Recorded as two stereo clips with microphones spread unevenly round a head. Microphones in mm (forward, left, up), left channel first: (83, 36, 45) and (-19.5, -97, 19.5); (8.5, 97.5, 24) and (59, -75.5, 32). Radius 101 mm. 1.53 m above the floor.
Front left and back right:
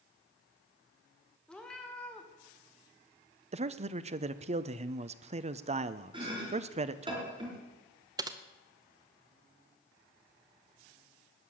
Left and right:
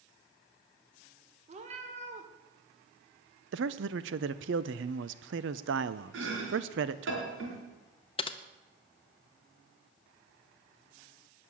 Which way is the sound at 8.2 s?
165° left.